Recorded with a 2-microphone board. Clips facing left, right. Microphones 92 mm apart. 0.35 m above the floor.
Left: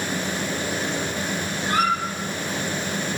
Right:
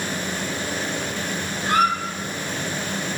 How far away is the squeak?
About 1.3 m.